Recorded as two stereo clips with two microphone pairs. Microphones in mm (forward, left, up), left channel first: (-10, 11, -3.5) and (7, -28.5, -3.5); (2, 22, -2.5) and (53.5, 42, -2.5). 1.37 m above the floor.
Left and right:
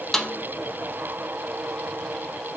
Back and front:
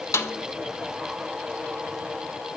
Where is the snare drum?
165° right, 1.7 m.